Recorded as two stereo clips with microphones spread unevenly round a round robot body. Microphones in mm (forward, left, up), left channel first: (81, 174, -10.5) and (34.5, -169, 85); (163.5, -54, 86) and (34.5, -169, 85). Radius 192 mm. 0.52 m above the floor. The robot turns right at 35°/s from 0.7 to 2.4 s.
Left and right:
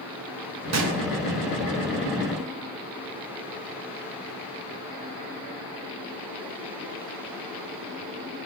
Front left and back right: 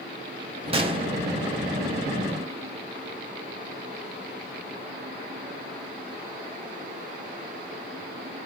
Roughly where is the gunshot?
Behind right.